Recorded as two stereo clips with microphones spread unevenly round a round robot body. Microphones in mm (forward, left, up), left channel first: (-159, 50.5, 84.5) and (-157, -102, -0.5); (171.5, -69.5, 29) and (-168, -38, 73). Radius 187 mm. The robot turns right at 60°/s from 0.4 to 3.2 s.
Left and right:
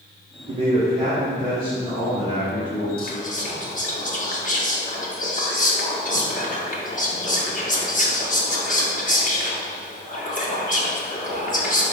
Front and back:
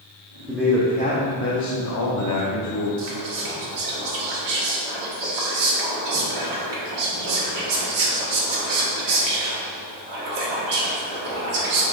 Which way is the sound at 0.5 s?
100° right.